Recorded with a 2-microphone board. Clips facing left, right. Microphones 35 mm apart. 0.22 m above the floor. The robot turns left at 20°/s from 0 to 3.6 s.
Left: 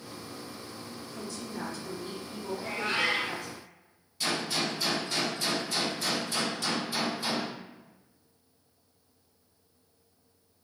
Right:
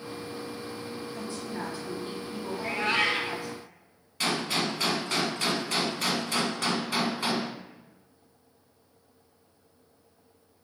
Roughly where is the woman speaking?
Right.